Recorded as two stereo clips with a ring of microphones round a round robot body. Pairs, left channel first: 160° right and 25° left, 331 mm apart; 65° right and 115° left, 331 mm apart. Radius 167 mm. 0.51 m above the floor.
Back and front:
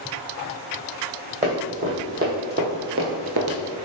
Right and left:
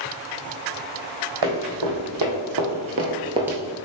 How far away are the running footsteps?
About 1.8 m.